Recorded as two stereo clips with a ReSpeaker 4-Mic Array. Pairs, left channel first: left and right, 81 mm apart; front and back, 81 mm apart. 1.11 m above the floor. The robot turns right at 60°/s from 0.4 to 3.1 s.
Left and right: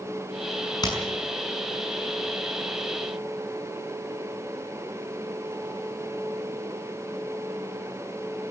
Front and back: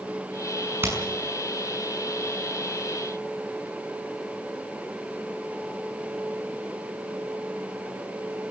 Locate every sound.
0.8 s hammering: 115° left, 6 m; by 1.0 s 125° left, 6 m